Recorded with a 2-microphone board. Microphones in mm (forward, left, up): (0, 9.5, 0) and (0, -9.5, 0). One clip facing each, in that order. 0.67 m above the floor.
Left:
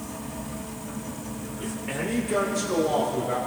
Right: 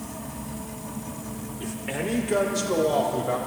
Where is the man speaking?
10° right (ahead or behind), 2 m; by 3.4 s 25° right (ahead or behind), 4 m.